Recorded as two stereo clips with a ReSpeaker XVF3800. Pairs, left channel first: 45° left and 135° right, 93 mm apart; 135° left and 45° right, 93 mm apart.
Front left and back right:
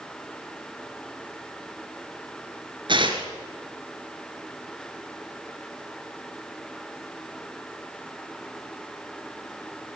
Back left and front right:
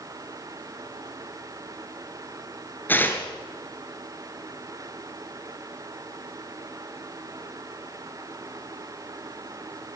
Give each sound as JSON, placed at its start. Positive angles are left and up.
{"t": 2.9, "sound": "tearing paper", "azimuth_deg": -160, "distance_m": 3.5}